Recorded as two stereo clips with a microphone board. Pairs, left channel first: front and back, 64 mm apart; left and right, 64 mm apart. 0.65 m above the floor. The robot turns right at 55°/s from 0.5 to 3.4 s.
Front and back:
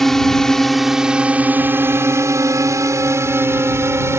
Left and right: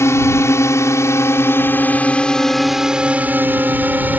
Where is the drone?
85° left; by 4.2 s 145° right.